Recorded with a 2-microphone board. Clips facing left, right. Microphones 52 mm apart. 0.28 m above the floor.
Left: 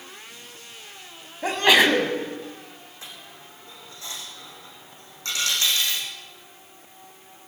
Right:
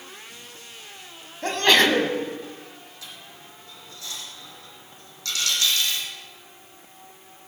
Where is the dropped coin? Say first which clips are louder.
Left 2 dB; 30° left (ahead or behind), 5 m.